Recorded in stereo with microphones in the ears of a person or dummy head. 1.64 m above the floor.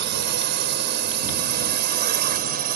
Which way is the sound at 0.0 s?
50° right (ahead or behind).